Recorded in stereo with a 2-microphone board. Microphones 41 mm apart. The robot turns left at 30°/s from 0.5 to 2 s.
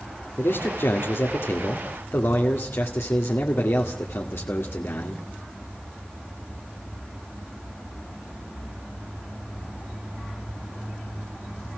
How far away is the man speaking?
About 2 m.